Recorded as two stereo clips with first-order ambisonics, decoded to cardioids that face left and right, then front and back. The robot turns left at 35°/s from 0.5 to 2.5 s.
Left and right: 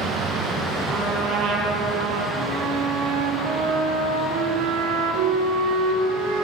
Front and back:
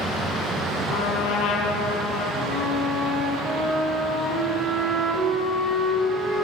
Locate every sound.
0.9 s a trumpet: 30° right, 5.5 m; by 2.3 s 75° right, 5.5 m
2.4 s a flute: 105° right, 6.5 m